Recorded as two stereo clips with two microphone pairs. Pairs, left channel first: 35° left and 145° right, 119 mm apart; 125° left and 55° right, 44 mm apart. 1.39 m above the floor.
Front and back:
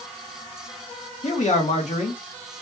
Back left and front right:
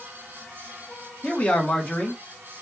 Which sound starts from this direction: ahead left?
A man speaking, at 1.2 s.